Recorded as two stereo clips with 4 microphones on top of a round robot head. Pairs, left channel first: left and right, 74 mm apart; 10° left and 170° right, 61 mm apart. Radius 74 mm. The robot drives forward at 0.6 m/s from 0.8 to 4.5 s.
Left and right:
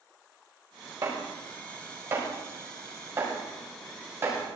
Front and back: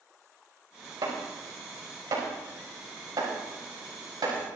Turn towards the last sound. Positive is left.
turn(degrees=-150)